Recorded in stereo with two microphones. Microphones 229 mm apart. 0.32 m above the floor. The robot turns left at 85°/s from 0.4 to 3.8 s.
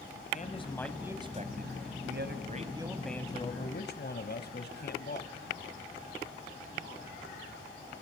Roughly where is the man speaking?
Ahead left.